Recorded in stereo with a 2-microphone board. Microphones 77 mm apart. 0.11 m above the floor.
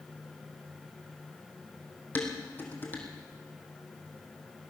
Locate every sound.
2.1 s dishes clattering: 25° left (ahead or behind), 3 m